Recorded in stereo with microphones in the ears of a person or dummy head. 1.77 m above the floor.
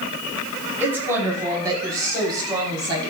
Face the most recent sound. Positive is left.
turn(degrees=-30)  # may be behind; listen again after turning